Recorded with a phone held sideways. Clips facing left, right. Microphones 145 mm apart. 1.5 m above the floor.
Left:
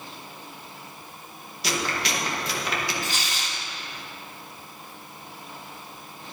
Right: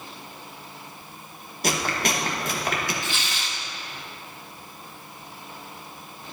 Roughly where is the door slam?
I don't hear a door slam.